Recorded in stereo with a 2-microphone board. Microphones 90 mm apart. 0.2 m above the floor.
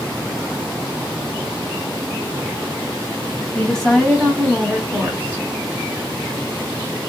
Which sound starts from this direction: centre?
A woman speaking, at 3.5 s.